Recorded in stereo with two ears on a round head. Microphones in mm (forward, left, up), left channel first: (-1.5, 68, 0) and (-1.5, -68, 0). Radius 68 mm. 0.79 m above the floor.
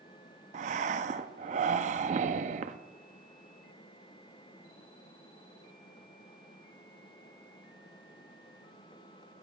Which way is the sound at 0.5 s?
50° right (ahead or behind).